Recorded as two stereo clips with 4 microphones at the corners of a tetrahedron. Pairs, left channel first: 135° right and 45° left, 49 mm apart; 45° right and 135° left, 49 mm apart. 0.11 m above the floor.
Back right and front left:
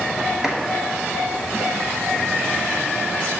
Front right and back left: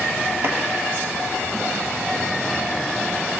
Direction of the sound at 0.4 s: 125° left.